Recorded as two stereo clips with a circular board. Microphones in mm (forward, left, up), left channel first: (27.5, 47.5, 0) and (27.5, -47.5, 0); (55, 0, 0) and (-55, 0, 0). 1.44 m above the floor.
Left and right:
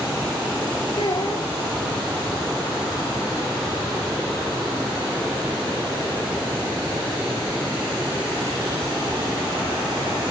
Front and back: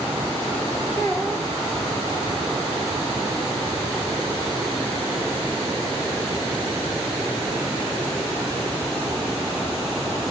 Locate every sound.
1.0 s a child speaking: 65° left, 1.8 m